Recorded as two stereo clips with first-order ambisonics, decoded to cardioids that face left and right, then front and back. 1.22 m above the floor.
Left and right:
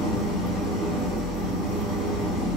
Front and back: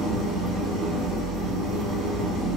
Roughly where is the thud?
I don't hear a thud.